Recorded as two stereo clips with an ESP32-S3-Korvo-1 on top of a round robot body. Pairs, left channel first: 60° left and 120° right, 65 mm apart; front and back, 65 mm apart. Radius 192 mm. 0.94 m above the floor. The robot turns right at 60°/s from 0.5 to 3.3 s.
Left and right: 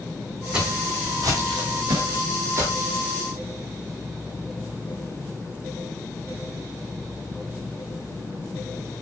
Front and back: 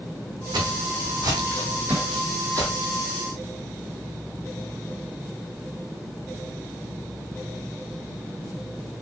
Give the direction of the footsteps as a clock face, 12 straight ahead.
7 o'clock.